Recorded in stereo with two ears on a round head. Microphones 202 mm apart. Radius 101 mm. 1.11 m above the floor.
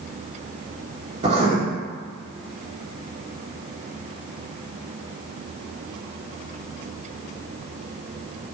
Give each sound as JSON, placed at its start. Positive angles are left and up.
{"t": 1.2, "sound": "writing", "side_deg": -30, "distance_m": 1.5}